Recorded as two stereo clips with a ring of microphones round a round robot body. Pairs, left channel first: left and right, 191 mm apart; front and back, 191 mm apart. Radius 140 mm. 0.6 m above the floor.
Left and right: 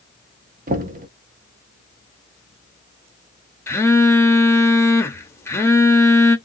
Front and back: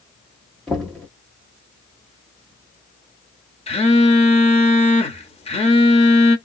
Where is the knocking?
85° right, 0.7 m.